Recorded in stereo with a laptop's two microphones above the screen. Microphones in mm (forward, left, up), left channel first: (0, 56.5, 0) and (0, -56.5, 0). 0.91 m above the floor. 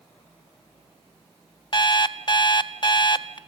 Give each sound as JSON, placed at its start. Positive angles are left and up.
{"t": 1.7, "sound": "an alarm clock", "side_deg": 40, "distance_m": 0.5}